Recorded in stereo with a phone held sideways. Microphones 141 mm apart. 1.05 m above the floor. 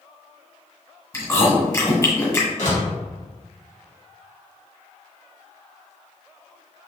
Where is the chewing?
20° left (ahead or behind), 1.7 m.